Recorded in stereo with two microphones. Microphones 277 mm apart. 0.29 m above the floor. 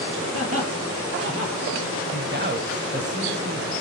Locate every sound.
0.3 s laughter: 55° right (ahead or behind), 6.5 m; by 1.6 s 45° right (ahead or behind), 7.5 m
2.1 s a man speaking: 35° right (ahead or behind), 1.3 m